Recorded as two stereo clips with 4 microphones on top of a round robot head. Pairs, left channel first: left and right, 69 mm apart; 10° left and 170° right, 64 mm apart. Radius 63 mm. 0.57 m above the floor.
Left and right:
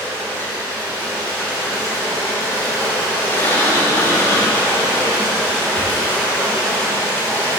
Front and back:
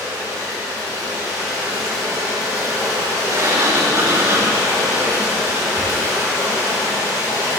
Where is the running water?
140° right, 2.5 m.